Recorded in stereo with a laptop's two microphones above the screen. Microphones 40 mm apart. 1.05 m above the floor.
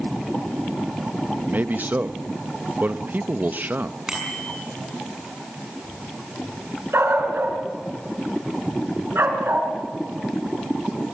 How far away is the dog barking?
About 4.5 m.